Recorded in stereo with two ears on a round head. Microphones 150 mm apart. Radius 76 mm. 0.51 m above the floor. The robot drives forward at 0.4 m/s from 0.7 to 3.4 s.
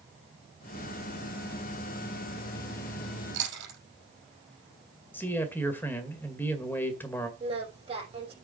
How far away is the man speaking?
About 2 m.